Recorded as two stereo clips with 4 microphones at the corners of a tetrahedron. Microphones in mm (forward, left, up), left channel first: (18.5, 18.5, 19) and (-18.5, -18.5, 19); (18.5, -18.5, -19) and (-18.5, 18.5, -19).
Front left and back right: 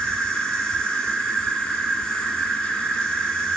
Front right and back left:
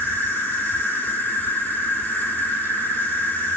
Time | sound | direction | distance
0.0 | an insect | 25° right | 1.0 m